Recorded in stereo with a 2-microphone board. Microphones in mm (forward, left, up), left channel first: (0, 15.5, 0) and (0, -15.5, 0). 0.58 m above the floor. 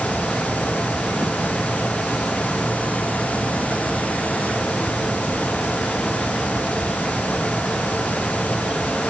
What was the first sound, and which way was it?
Only background noise.